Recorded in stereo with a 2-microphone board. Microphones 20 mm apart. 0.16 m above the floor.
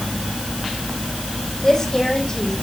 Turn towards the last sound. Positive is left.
turn(degrees=25)  # may be behind; listen again after turning